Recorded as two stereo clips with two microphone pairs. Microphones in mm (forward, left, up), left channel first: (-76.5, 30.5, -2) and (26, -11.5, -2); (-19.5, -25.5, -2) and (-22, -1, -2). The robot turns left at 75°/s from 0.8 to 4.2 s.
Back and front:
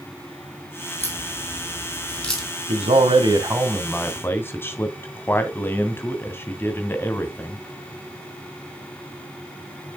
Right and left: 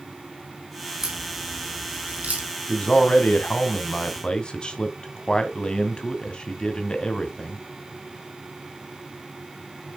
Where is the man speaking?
20° right, 2 m; by 7.6 s 135° right, 2 m.